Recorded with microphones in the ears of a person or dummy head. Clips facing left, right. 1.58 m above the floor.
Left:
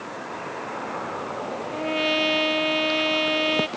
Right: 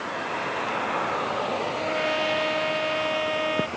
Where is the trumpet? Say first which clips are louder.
Left 2 dB; 40° left (ahead or behind).